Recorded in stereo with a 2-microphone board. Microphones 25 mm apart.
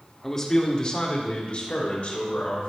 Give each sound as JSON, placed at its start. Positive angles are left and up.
{"t": 0.2, "sound": "a man speaking", "side_deg": 15, "distance_m": 1.4}